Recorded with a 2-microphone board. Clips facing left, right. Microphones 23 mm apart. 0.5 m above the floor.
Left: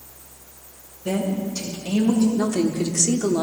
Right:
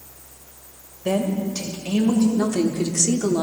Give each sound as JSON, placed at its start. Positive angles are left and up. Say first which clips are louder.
{"t": 1.1, "sound": "a woman speaking", "louder": "right 2 dB", "side_deg": -35, "distance_m": 2.5}
{"t": 2.4, "sound": "a woman speaking", "louder": "even", "side_deg": 0, "distance_m": 0.9}